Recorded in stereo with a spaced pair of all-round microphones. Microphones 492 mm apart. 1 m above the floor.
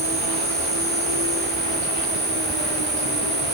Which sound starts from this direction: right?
An insect, at 0.0 s.